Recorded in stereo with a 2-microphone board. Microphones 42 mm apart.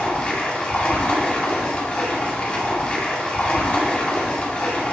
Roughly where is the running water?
Left.